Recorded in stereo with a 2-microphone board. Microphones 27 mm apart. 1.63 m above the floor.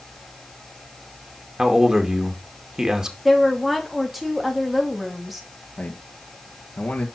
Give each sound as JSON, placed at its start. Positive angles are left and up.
{"t": 1.6, "sound": "a man speaking", "side_deg": -25, "distance_m": 2.0}
{"t": 3.2, "sound": "a woman speaking", "side_deg": -5, "distance_m": 2.5}
{"t": 5.8, "sound": "a man speaking", "side_deg": 60, "distance_m": 1.9}